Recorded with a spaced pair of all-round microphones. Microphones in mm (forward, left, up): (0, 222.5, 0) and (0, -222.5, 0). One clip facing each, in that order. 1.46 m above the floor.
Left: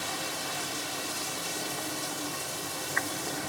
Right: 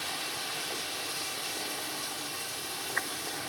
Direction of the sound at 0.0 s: 65° left (ahead or behind).